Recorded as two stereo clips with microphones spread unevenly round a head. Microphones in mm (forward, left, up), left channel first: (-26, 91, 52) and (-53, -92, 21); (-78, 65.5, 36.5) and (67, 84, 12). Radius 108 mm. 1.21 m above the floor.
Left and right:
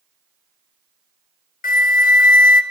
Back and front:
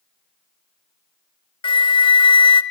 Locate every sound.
1.6 s a flute: 125° left, 0.7 m